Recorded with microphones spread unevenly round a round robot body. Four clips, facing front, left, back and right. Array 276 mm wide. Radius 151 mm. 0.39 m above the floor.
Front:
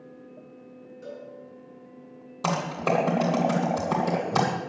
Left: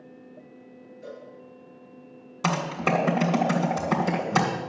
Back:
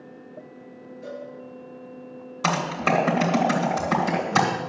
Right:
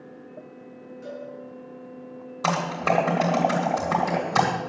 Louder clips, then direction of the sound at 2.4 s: Right 2 dB, back 2 dB; 50° left.